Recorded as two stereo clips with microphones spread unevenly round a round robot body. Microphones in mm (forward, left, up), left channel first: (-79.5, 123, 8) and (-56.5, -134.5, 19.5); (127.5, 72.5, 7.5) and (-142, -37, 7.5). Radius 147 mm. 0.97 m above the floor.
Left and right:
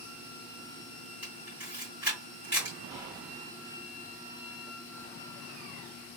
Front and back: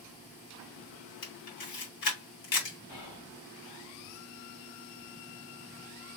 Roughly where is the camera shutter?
Ahead.